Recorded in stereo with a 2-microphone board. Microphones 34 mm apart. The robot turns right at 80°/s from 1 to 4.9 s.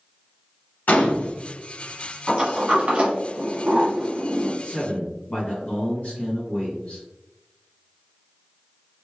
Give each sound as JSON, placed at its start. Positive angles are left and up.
{"t": 0.9, "sound": "a gunshot", "side_deg": 55, "distance_m": 1.4}
{"t": 2.3, "sound": "a sliding door", "side_deg": -15, "distance_m": 1.3}
{"t": 4.6, "sound": "a man speaking", "side_deg": 40, "distance_m": 1.8}